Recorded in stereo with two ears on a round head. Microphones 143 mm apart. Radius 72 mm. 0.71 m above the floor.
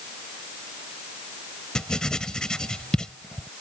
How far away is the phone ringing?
No phone ringing in this recording.